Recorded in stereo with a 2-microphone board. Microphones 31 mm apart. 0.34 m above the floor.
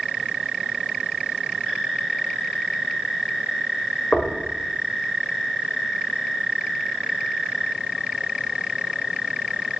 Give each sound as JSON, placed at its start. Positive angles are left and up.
{"t": 4.1, "sound": "knocking", "side_deg": 35, "distance_m": 0.7}